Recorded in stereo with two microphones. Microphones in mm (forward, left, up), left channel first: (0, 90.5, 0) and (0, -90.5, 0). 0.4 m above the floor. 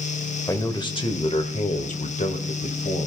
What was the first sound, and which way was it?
A man speaking, 15° left (ahead or behind).